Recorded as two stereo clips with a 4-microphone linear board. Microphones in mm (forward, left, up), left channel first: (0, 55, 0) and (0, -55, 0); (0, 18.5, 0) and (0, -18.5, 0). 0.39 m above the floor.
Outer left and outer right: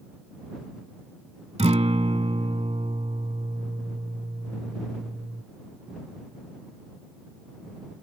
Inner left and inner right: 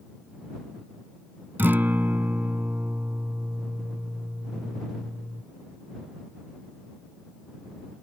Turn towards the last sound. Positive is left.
turn(degrees=-70)  # may be behind; listen again after turning